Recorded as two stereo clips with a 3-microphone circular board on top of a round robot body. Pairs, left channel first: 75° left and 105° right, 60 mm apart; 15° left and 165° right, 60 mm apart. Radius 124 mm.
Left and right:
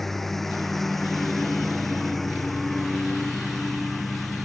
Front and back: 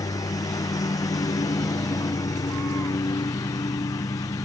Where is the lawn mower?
10° right.